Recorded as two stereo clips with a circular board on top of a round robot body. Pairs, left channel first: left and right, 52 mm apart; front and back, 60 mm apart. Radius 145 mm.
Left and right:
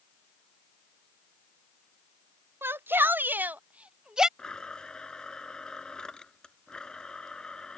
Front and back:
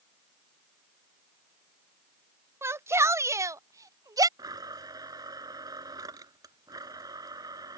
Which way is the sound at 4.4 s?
165° left.